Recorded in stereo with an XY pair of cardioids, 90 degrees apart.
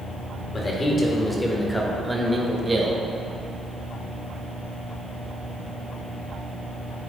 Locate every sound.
0.5 s a man speaking: 40° left, 2.0 m; by 3.0 s 35° right, 1.5 m